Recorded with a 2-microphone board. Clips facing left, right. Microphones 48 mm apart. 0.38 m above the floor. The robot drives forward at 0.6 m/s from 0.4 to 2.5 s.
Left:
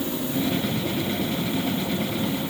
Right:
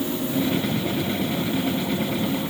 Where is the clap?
No clap in this recording.